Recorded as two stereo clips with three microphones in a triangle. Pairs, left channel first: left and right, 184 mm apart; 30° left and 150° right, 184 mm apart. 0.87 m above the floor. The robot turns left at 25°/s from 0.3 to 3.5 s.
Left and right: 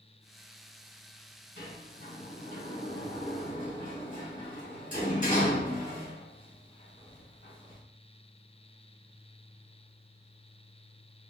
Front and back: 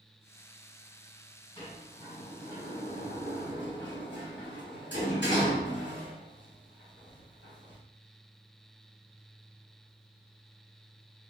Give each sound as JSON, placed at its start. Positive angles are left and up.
{"t": 1.6, "sound": "a sliding door", "azimuth_deg": 95, "distance_m": 1.8}